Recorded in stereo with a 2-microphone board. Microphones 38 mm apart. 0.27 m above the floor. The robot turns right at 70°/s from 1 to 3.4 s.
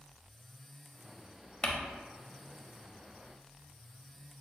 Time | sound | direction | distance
1.6 | crumpling | 25° left (ahead or behind) | 0.6 m